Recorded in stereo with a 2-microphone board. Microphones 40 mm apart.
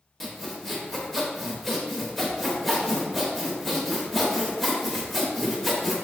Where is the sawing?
5° left (ahead or behind), 0.8 m.